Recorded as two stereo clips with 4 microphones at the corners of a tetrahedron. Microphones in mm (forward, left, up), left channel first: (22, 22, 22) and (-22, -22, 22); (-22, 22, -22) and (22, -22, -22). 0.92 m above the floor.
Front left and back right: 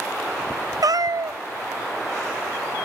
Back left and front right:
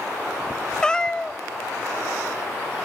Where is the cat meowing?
145° right, 0.6 m.